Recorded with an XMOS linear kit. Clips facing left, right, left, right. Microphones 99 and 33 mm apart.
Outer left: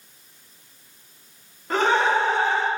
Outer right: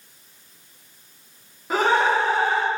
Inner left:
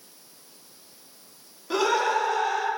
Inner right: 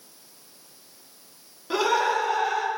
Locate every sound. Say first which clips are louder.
1.7 s laughter: outer right 1 dB, even; 5° right (ahead or behind), 0.9 m